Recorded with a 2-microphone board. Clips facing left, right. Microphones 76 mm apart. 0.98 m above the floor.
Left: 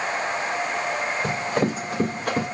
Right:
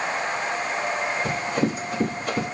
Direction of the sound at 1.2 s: 75° left (ahead or behind).